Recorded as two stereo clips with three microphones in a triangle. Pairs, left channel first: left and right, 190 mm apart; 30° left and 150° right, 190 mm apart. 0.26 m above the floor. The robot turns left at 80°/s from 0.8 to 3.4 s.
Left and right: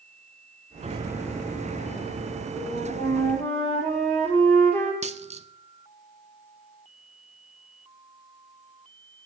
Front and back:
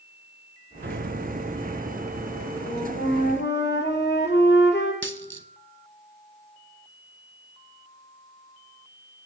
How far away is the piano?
About 0.9 m.